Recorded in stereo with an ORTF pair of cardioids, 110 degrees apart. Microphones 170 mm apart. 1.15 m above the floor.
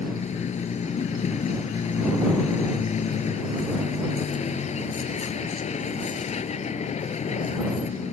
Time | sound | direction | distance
0.0 | a vehicle | 40° left | ?